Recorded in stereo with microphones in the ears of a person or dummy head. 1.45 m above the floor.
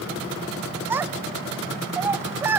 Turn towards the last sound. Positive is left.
turn(degrees=-10)  # may be behind; listen again after turning